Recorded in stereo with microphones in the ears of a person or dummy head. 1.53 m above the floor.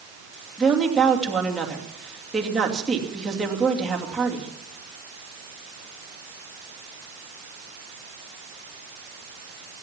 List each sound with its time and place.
0.6 s a woman speaking: centre (ahead or behind), 2.5 m